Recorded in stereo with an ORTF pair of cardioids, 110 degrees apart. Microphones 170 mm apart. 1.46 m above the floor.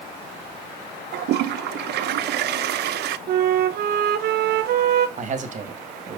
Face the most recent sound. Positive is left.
turn(degrees=-40)